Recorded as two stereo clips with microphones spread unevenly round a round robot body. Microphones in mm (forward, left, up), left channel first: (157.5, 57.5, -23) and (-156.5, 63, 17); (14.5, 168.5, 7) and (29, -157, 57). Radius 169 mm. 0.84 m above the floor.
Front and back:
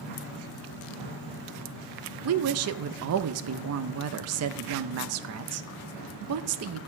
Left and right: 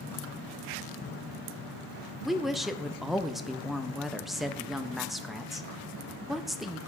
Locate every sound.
2.2 s a woman speaking: 170° left, 0.5 m